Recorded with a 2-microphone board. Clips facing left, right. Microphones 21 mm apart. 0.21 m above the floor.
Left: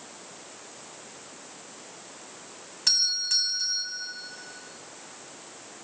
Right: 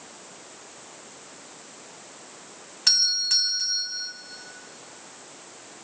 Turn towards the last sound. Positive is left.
turn(degrees=-15)  # may be behind; listen again after turning